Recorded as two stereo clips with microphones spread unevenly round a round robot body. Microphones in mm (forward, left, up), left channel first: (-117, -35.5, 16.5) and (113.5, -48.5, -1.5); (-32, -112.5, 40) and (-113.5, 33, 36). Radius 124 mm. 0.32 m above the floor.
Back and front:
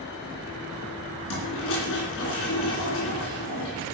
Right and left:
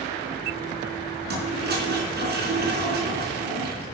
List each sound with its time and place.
1.3 s a toilet flushing: 135° left, 3.5 m